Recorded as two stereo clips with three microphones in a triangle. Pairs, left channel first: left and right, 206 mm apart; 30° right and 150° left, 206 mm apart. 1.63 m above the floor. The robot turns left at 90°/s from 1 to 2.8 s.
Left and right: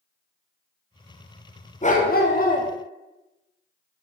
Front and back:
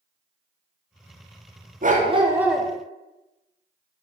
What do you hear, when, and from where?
1.8 s a dog barking: 125° left, 1.4 m; by 2.7 s 50° left, 1.4 m